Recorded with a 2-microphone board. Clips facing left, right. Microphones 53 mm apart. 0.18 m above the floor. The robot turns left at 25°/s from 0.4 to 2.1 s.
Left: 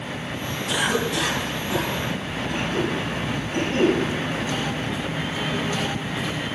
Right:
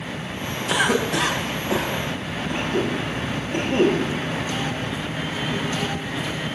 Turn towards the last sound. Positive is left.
turn(degrees=-30)  # may be behind; listen again after turning